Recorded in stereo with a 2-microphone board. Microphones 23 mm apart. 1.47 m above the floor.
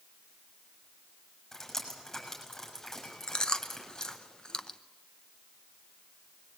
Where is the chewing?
40° left (ahead or behind), 0.9 m.